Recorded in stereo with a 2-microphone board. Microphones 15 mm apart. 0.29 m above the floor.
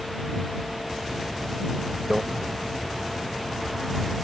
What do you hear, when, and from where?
2.1 s a microwave: 25° right (ahead or behind)